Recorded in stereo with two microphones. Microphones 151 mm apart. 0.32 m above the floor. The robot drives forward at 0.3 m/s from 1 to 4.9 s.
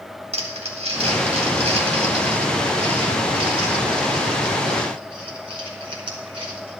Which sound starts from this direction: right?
Crumpling, at 0.3 s.